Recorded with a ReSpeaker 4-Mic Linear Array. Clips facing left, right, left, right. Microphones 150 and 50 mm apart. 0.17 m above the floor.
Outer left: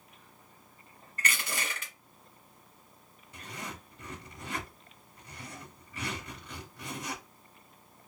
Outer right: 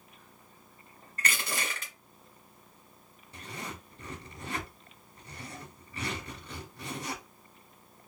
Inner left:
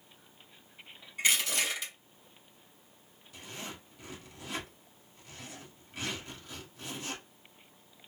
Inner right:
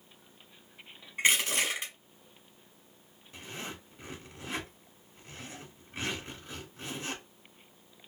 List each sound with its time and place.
1.2 s crushing: 35° right (ahead or behind), 1.4 m
3.3 s a zipper: 35° right (ahead or behind), 1.3 m